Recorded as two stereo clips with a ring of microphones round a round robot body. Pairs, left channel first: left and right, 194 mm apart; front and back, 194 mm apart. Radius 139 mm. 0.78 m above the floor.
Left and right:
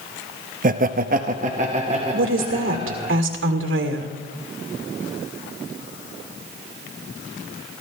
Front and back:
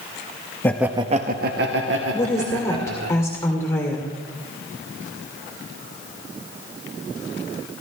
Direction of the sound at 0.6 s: 75° right.